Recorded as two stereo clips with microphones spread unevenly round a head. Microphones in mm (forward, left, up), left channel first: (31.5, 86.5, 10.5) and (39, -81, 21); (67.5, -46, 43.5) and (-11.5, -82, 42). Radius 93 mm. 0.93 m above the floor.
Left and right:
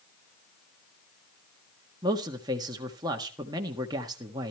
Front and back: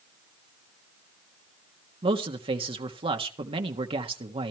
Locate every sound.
2.0 s a man speaking: 160° right, 1.5 m